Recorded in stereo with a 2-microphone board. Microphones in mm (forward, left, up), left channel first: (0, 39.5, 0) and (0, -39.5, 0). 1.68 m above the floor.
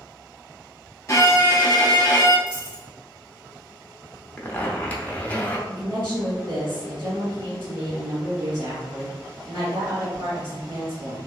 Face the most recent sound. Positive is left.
turn(degrees=-80)